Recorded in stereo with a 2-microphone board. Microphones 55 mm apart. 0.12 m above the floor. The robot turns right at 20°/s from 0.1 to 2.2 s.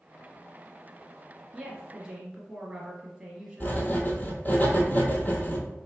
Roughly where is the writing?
Left.